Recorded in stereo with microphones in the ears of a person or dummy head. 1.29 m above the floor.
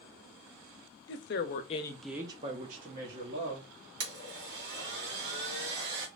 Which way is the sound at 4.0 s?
60° right (ahead or behind).